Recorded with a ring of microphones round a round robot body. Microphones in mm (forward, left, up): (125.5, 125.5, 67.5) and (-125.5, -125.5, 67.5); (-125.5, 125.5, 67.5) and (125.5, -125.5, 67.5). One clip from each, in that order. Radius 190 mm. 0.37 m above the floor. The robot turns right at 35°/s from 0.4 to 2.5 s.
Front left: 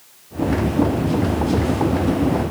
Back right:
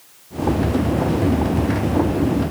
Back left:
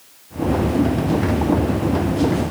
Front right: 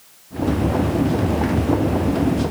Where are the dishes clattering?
I don't hear dishes clattering.